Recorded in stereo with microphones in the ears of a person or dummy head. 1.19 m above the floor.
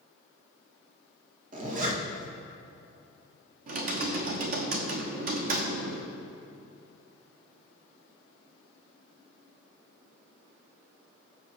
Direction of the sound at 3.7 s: 45° right (ahead or behind).